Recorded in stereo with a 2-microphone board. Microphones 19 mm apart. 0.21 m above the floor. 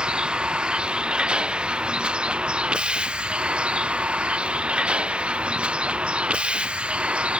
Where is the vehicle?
60° right (ahead or behind); by 7.4 s 90° right.